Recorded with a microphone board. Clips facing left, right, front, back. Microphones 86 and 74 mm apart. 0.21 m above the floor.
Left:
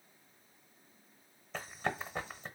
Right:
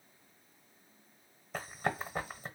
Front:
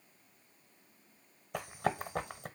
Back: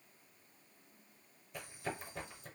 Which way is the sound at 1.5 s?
10° right.